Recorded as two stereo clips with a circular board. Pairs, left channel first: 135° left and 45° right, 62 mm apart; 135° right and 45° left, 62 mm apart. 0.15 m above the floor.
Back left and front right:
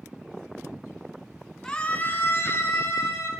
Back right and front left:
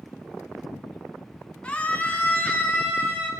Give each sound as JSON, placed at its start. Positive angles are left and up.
{"t": 1.6, "sound": "a scream", "azimuth_deg": -165, "distance_m": 1.2}